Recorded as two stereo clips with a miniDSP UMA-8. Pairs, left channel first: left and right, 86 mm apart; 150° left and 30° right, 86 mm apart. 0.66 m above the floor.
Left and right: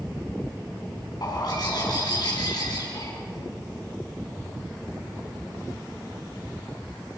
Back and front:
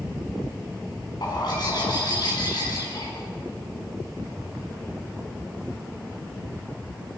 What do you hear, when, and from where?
1.2 s a bird: 120° left, 6 m